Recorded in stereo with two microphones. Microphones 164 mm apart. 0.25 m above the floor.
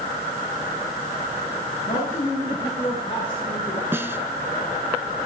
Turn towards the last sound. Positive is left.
turn(degrees=-15)  # may be behind; listen again after turning